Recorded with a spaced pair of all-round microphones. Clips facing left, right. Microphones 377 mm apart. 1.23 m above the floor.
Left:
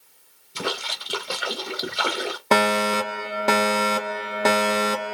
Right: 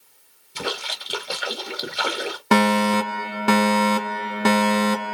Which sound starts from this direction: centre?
A splash, at 0.6 s.